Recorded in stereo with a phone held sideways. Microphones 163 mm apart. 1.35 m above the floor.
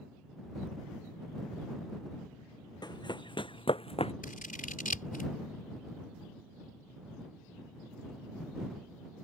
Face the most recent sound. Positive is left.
turn(degrees=60)  # may be behind; listen again after turning